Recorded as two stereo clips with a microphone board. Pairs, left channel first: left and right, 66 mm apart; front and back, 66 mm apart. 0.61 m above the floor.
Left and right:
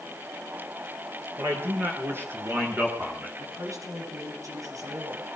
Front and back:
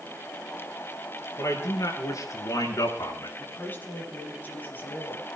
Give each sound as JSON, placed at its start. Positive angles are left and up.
{"t": 1.4, "sound": "a man speaking", "azimuth_deg": -40, "distance_m": 8.0}
{"t": 3.4, "sound": "a woman speaking", "azimuth_deg": -60, "distance_m": 5.5}